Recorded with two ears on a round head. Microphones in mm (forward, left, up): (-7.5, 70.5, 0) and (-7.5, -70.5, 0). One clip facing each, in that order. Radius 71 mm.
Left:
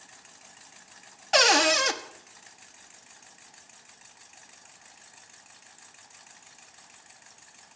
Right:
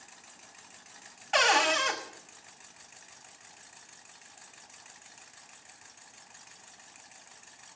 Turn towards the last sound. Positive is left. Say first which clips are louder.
# left 4 dB
turn(degrees=45)  # may be behind; listen again after turning